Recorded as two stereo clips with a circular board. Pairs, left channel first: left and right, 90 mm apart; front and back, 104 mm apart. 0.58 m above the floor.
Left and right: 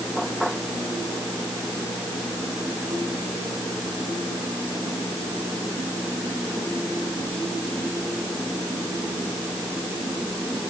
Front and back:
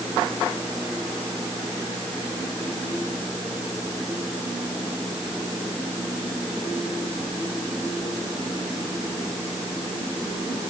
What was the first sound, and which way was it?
Only background noise.